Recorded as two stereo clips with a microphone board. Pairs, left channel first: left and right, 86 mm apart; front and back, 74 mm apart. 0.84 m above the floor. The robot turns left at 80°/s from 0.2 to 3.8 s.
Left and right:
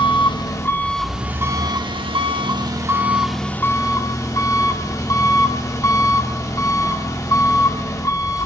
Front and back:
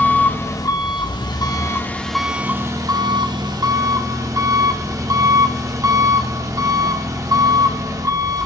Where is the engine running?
70° left, 1.5 m; by 8.5 s 140° left, 1.5 m.